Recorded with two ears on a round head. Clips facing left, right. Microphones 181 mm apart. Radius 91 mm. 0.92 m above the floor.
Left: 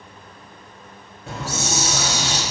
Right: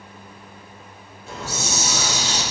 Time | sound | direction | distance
1.3 | a hiss | 55° left (ahead or behind) | 1.6 m